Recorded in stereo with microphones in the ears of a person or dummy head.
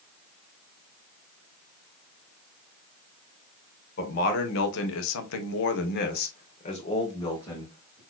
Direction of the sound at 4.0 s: 50° left (ahead or behind).